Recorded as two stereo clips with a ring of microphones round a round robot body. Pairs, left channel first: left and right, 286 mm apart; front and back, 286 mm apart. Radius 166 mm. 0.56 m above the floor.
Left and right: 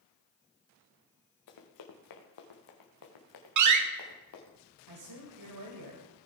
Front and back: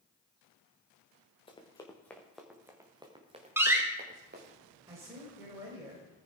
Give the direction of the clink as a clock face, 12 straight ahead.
No clink in this recording.